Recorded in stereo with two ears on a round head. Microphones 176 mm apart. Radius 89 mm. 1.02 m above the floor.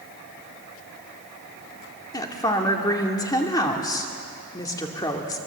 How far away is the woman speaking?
About 2 m.